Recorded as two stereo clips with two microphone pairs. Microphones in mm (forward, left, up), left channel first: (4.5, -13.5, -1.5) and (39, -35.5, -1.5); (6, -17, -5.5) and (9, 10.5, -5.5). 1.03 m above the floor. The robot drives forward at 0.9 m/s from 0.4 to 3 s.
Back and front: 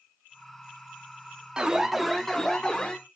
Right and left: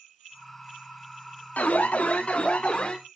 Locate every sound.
1.6 s an alarm: 100° right, 1.1 m; by 3.0 s 145° right, 1.8 m